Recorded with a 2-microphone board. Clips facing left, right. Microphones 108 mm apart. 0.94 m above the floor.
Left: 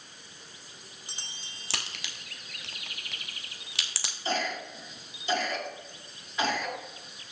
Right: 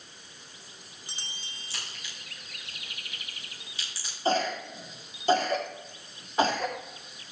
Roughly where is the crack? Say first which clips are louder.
Left 5 dB; left.